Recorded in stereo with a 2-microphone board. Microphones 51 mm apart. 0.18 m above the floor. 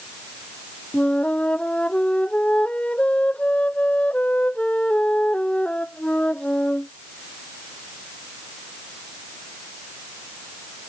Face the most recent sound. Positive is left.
turn(degrees=25)  # may be behind; listen again after turning